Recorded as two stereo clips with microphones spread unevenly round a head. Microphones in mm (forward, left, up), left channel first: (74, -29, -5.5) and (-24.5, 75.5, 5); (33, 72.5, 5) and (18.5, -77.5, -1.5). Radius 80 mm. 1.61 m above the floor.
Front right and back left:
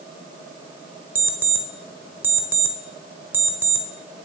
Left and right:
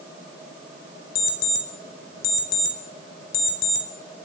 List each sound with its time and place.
1.1 s an alarm clock: 55° left, 4.5 m